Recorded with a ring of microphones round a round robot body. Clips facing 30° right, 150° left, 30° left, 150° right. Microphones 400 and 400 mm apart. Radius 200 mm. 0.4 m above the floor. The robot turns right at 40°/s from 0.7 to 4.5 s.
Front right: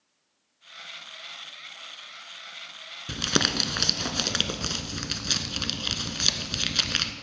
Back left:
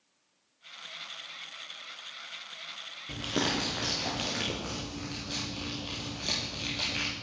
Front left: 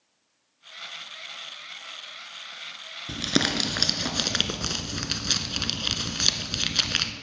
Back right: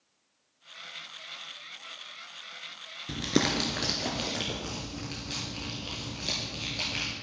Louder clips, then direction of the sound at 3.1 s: Front right 3 dB, front left 1 dB; 55° right.